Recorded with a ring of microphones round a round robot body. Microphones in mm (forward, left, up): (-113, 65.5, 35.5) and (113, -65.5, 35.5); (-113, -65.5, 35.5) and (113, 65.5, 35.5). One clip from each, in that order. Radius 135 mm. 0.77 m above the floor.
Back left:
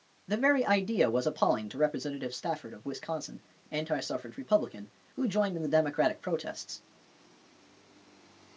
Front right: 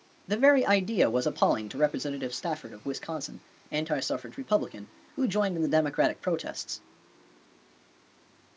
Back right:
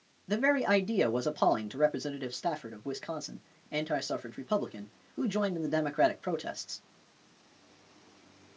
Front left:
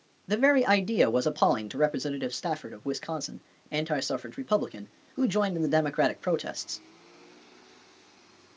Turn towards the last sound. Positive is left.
turn(degrees=20)